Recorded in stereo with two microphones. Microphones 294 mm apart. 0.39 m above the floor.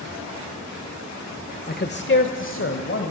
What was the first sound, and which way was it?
A man speaking, 30° left (ahead or behind).